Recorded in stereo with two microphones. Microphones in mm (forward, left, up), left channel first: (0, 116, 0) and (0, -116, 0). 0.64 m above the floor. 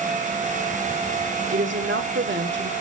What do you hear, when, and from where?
1.5 s a woman speaking: 55° right (ahead or behind), 1.3 m